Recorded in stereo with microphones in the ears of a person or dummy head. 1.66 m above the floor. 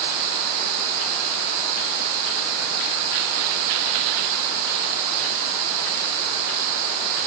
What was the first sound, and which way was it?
Only background noise.